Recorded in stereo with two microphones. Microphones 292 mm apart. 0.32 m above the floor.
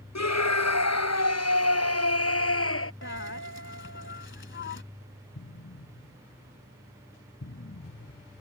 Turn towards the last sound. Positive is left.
turn(degrees=50)  # may be behind; listen again after turning